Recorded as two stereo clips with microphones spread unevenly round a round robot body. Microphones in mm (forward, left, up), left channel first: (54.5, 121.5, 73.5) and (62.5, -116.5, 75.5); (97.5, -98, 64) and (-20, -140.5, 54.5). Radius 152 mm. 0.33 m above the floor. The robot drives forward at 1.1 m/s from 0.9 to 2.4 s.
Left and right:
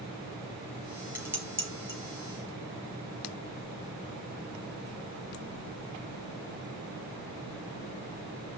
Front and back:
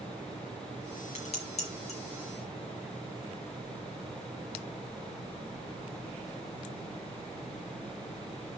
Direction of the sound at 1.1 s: 5° right.